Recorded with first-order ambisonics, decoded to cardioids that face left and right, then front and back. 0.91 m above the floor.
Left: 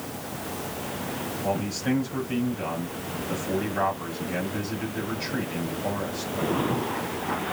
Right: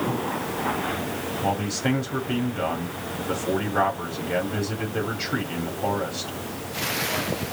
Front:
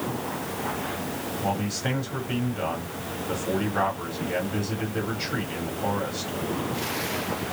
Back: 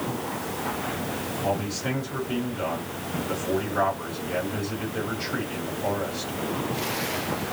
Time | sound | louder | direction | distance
1.4 | a man speaking | right 3 dB, back 1 dB | 75° right | 2 m